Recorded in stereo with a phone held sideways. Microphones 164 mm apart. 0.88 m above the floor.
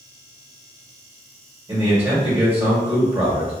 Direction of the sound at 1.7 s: 15° right (ahead or behind).